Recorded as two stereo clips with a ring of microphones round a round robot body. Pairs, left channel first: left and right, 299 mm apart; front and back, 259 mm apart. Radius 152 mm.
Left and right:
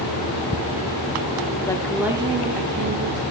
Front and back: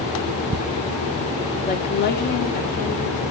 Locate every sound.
1.7 s a woman speaking: 20° left, 1.3 m; by 3.2 s 60° right, 1.9 m